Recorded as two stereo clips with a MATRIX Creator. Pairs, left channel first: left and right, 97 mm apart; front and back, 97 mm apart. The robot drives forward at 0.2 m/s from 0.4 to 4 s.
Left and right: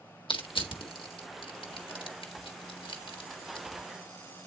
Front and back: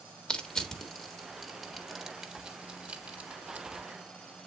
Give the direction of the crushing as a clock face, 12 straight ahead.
9 o'clock.